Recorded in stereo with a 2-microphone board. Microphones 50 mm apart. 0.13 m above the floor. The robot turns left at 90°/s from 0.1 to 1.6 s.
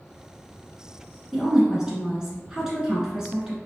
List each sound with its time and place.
1.3 s a woman speaking: centre (ahead or behind), 1.2 m; by 3.6 s 10° right (ahead or behind), 1.2 m